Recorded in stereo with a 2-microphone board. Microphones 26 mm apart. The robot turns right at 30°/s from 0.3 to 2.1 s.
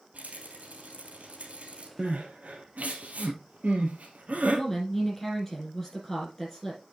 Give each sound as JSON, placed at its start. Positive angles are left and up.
{"t": 0.1, "sound": "a rattle", "azimuth_deg": -105, "distance_m": 3.0}
{"t": 2.0, "sound": "crying", "side_deg": -75, "distance_m": 1.7}
{"t": 4.5, "sound": "a woman speaking", "side_deg": 15, "distance_m": 5.5}